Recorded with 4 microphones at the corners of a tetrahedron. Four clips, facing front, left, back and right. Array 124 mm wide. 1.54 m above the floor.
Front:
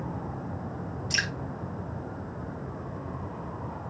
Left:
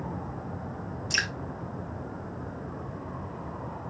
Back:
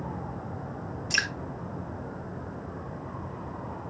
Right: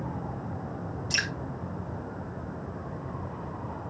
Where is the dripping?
135° left, 1.7 m.